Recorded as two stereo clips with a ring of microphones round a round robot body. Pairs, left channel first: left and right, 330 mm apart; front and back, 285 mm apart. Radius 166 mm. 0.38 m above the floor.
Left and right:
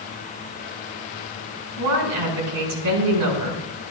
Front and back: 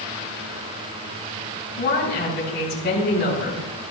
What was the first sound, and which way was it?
A woman speaking, 65° right.